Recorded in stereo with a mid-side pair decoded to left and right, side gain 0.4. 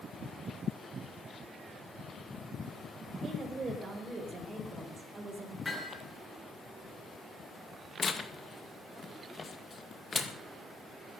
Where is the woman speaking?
50° right, 5 m; by 5.5 s 30° right, 4.5 m.